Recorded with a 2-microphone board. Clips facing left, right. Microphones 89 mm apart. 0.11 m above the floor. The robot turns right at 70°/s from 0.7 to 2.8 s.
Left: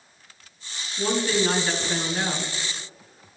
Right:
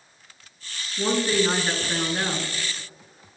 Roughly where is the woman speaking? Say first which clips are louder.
Right 1 dB; centre.